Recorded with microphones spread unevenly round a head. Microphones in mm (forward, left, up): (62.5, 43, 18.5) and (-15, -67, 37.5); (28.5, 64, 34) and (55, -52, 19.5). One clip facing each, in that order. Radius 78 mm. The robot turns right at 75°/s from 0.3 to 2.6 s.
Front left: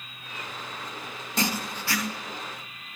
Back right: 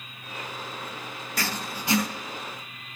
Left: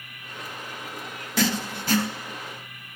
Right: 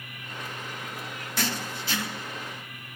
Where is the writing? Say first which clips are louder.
Front left 4 dB, left 7 dB; 120° left, 1.0 m; by 2.1 s 175° left, 1.0 m.